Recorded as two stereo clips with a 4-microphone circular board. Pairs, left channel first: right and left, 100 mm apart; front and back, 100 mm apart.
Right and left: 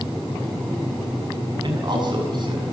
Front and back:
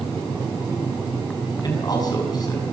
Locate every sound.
1.6 s a man speaking: 50° left, 6.5 m